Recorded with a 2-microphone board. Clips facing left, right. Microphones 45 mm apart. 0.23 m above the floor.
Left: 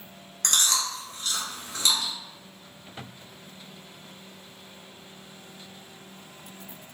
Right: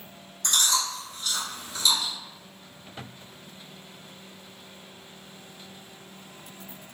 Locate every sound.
0.4 s chewing: 65° left (ahead or behind), 1.0 m